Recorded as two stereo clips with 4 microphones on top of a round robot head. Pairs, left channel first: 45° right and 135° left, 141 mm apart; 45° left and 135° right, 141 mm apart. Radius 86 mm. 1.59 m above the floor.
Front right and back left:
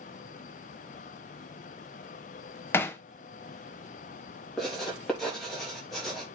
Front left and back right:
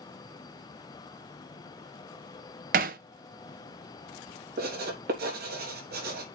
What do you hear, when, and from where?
2.7 s hammering: 120° right, 0.6 m
4.6 s writing: 130° right, 3.5 m